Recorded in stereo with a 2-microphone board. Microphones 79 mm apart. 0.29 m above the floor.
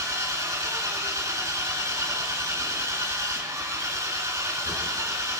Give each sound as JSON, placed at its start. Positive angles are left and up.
{"t": 0.0, "sound": "an engine running", "side_deg": -45, "distance_m": 1.7}